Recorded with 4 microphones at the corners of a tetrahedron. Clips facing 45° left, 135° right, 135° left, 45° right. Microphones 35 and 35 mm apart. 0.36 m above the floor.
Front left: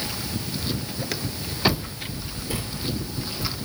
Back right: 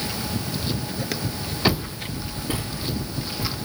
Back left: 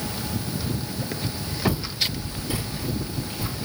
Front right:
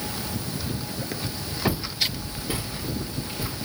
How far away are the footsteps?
About 4.5 m.